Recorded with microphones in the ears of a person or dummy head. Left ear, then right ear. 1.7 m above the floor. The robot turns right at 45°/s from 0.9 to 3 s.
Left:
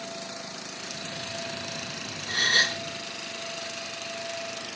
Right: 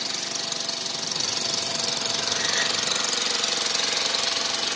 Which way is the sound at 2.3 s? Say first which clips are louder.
Left 5 dB; 50° left (ahead or behind).